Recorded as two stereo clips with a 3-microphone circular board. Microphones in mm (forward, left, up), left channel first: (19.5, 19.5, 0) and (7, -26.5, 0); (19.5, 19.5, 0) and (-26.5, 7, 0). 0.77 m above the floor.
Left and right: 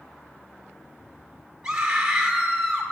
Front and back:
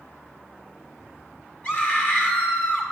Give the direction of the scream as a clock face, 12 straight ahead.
1 o'clock.